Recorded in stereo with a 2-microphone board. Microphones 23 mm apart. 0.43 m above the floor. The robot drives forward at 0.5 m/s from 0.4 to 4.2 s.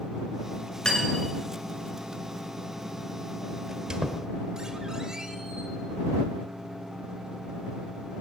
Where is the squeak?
40° right (ahead or behind), 1.1 m; by 5.7 s 35° right (ahead or behind), 1.3 m.